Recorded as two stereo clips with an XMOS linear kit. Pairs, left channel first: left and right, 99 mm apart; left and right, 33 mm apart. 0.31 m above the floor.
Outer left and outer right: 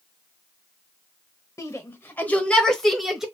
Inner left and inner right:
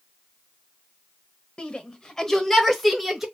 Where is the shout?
30° left (ahead or behind), 1.0 m; by 3.2 s 5° right (ahead or behind), 1.1 m.